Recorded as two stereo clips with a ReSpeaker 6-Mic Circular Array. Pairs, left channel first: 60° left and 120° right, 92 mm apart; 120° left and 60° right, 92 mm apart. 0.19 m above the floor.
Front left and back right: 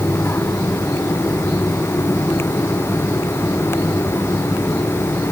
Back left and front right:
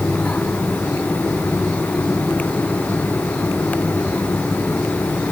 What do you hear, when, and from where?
Only background noise.